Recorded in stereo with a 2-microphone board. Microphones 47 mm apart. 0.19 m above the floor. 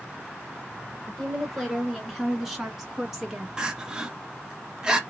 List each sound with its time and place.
1.1 s a woman speaking: centre (ahead or behind), 2.5 m; by 3.5 s 10° right (ahead or behind), 1.6 m
3.6 s crying: 15° right (ahead or behind), 0.8 m